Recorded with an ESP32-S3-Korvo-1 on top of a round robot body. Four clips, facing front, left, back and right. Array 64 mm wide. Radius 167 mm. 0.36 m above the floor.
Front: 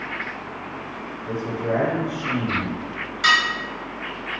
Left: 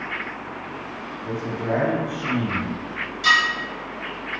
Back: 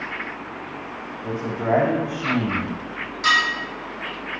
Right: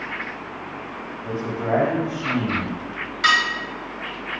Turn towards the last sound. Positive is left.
turn(degrees=-65)